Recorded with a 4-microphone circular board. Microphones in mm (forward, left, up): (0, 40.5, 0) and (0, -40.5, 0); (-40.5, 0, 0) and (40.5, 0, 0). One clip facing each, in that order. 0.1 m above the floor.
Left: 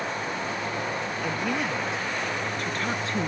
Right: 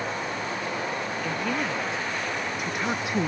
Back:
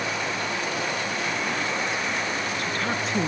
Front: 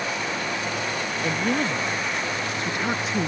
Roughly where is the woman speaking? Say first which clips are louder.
Left 1 dB, front 3 dB; ahead.